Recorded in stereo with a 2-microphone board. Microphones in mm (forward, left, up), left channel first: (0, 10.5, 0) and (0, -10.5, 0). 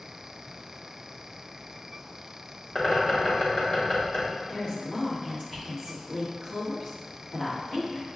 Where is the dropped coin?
No dropped coin in this recording.